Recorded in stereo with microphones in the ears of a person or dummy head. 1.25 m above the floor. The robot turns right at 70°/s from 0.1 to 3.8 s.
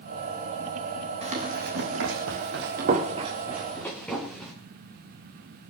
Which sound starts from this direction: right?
Running footsteps, at 1.2 s.